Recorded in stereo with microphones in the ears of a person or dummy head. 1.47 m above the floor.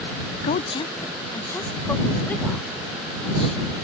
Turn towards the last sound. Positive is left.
turn(degrees=5)  # may be behind; listen again after turning